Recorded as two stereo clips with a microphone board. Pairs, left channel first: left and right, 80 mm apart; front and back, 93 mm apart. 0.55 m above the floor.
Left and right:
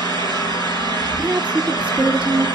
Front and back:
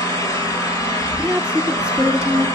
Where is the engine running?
50° left, 3 m.